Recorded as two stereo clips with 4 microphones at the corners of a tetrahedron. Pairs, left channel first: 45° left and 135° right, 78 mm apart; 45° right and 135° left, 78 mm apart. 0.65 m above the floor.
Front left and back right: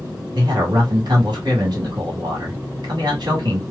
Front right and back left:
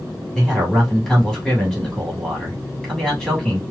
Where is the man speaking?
135° right, 1.9 m.